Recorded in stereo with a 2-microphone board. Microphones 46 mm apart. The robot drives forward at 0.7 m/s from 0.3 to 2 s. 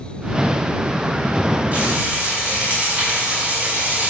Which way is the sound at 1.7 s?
25° right (ahead or behind).